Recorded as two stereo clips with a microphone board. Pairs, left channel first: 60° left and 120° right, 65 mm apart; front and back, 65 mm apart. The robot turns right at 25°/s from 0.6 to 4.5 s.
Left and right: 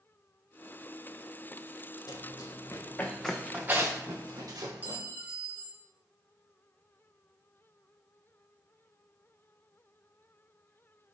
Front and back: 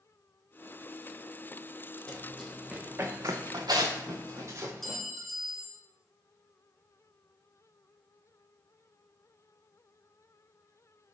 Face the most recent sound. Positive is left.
turn(degrees=-85)